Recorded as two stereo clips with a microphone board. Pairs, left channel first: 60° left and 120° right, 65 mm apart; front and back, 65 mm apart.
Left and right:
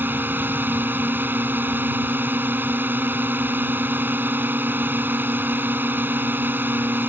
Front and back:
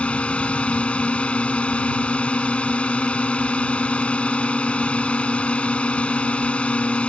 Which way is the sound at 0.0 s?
70° right.